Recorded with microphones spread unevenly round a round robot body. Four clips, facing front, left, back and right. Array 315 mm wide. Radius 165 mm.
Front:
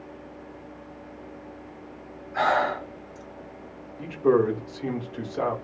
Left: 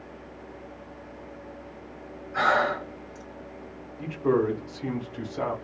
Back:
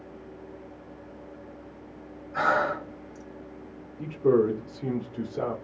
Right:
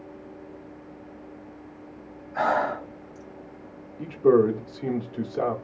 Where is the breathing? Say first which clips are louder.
Even, front 2 dB; 170° left, 2.0 m.